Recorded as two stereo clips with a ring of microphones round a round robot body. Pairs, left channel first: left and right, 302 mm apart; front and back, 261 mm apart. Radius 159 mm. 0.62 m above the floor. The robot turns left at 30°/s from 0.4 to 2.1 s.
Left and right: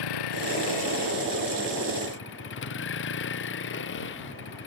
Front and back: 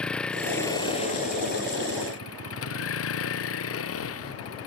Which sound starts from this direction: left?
A vehicle, at 0.0 s.